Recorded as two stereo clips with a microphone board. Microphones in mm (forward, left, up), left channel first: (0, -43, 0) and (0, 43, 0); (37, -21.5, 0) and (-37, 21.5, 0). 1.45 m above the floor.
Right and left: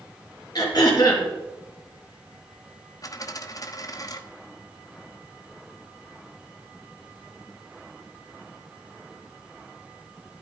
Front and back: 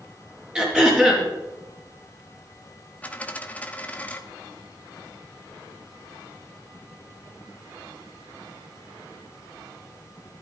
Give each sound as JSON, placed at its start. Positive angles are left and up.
{"t": 0.6, "sound": "throat clearing", "azimuth_deg": -130, "distance_m": 4.5}
{"t": 3.0, "sound": "a dropped coin", "azimuth_deg": -95, "distance_m": 1.1}